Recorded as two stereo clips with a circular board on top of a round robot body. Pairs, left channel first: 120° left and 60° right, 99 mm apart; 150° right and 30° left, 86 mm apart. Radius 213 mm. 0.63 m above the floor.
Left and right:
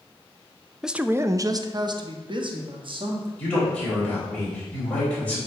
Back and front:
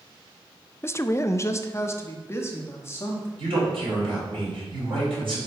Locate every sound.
0.8 s a man speaking: 140° right, 0.6 m; by 3.3 s 90° right, 1.8 m
3.4 s a man speaking: 45° left, 4 m